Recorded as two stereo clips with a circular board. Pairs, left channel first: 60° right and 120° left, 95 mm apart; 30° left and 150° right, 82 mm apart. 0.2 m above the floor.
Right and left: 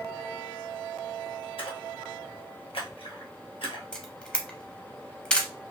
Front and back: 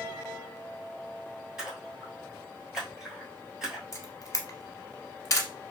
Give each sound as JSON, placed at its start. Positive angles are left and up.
{"t": 1.6, "sound": "a splash", "azimuth_deg": -65, "distance_m": 1.2}
{"t": 3.9, "sound": "a camera shutter", "azimuth_deg": 15, "distance_m": 0.7}